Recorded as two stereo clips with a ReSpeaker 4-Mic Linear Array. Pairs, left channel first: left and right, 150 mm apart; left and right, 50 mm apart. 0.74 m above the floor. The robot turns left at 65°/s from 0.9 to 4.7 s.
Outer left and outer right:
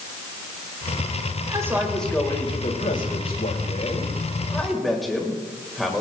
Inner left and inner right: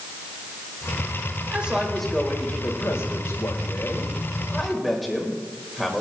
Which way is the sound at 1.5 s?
150° right.